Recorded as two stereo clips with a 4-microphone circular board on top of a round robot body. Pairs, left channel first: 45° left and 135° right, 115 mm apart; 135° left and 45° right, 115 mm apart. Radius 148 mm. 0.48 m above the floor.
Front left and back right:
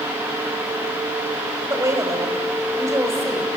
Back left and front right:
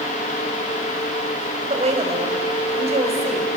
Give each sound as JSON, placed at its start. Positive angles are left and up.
{"t": 1.7, "sound": "a woman speaking", "azimuth_deg": -70, "distance_m": 3.0}